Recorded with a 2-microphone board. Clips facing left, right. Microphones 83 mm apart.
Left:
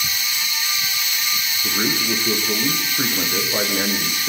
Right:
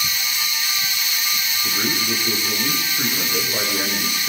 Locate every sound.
1.6 s a man speaking: 20° left (ahead or behind), 5.5 m